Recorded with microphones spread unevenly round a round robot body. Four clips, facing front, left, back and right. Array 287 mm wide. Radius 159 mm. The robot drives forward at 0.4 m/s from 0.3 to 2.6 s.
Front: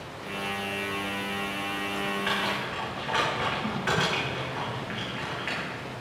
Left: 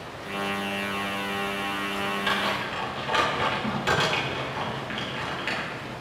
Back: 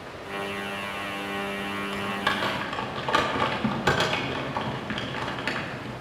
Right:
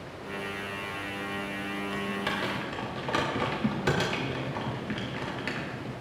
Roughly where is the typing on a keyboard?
Behind right.